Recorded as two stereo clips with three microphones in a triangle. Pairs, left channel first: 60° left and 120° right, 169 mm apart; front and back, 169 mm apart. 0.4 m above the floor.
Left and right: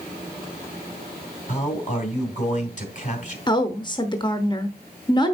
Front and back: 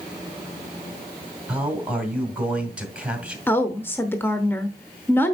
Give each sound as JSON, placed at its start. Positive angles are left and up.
{"t": 1.5, "sound": "a man speaking", "azimuth_deg": 95, "distance_m": 2.0}
{"t": 3.5, "sound": "a woman speaking", "azimuth_deg": 60, "distance_m": 0.9}